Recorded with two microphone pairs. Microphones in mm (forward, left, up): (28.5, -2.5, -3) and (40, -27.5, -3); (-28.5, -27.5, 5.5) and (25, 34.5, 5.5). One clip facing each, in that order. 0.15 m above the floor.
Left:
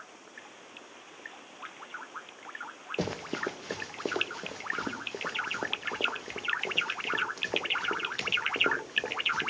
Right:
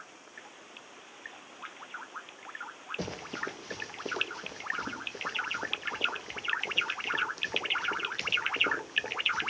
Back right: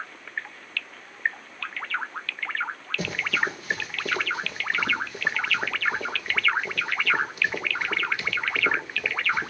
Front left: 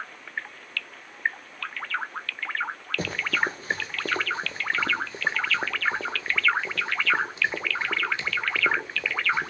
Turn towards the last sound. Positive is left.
turn(degrees=115)